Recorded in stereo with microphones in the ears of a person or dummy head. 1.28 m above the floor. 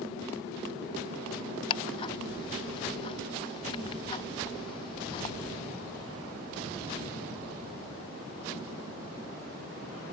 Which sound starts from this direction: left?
Ticking, at 1.7 s.